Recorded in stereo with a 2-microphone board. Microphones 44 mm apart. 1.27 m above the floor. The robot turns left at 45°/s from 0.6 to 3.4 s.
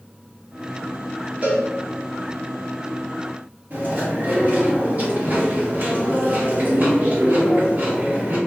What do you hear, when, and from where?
1.4 s a cowbell: 35° right (ahead or behind), 0.9 m; by 1.6 s 40° right (ahead or behind), 0.9 m
3.7 s chewing: 50° right (ahead or behind), 1.7 m